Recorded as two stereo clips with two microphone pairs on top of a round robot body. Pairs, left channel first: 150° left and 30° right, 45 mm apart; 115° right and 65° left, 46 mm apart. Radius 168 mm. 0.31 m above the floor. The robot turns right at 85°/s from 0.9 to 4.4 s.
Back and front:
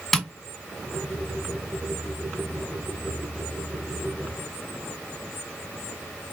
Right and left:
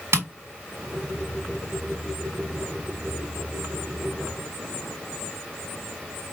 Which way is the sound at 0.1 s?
65° left.